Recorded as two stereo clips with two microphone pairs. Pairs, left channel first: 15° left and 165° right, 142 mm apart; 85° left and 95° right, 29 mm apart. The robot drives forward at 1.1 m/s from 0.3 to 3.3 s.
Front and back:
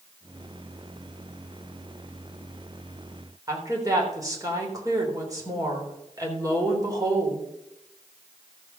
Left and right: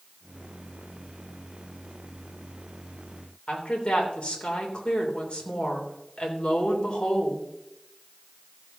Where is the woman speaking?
130° left, 3 m.